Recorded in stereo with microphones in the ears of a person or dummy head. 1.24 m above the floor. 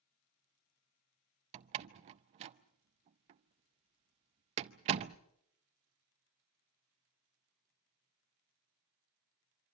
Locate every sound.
1.5 s a door slam: 35° right (ahead or behind), 0.5 m